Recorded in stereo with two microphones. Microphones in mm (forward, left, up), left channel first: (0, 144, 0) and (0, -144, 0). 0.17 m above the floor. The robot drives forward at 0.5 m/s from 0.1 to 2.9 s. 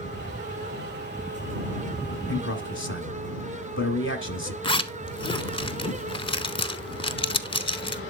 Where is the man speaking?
40° left (ahead or behind), 1.4 m; by 4.5 s 45° left (ahead or behind), 1.3 m.